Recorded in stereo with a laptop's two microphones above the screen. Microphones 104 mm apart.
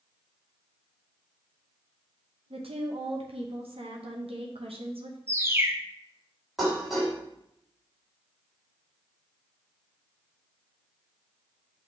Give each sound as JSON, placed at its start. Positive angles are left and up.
{"t": 2.5, "sound": "a woman speaking", "side_deg": -75, "distance_m": 0.9}
{"t": 5.3, "sound": "a bird", "side_deg": -25, "distance_m": 0.7}
{"t": 6.6, "sound": "dishes clattering", "side_deg": 0, "distance_m": 3.0}